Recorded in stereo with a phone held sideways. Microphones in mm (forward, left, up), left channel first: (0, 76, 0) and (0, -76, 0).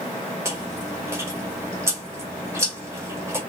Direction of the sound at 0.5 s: 20° right (ahead or behind).